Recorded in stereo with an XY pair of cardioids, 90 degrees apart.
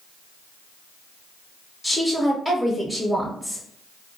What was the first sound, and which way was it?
A woman speaking, straight ahead.